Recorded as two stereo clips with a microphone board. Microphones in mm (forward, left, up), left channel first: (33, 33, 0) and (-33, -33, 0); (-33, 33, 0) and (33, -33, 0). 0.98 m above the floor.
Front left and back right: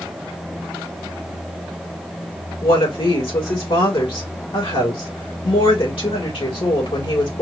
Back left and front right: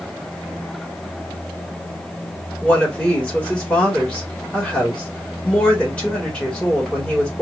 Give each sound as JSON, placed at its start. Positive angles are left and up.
{"t": 2.6, "sound": "a woman speaking", "azimuth_deg": 55, "distance_m": 3.0}